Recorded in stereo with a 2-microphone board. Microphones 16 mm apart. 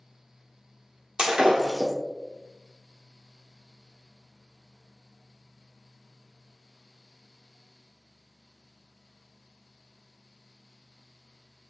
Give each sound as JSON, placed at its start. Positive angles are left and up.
{"t": 1.2, "sound": "breaking glass", "side_deg": -55, "distance_m": 0.9}